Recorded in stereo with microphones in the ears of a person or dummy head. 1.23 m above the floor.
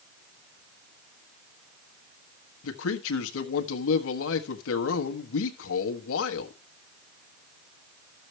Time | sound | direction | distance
2.6 | a man speaking | 80° left | 1.3 m